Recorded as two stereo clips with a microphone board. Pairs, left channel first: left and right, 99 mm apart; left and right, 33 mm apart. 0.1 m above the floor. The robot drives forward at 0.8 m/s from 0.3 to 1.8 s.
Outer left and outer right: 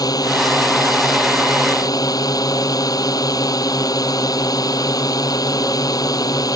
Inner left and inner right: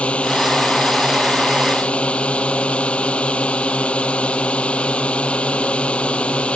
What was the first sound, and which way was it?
A drone, 40° left (ahead or behind).